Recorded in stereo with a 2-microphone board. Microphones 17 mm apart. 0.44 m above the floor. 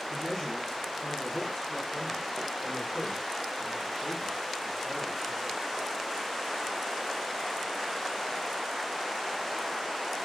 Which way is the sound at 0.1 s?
25° left (ahead or behind).